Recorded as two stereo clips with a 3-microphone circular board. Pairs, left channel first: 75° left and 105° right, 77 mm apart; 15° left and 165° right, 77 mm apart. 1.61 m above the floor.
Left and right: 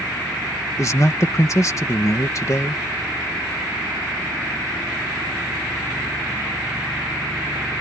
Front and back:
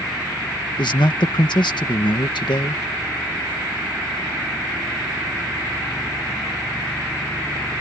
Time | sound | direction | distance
0.8 | a man speaking | 25° left | ?